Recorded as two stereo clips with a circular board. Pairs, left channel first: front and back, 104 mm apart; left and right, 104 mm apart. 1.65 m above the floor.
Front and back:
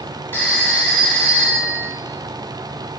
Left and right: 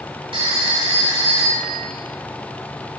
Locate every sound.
0.3 s a phone ringing: 65° right, 3.5 m